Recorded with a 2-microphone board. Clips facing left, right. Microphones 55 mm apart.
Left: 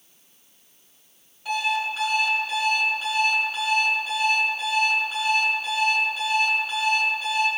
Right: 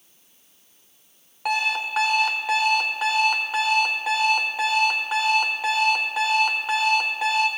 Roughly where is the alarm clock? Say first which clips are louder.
Right 1 dB; right.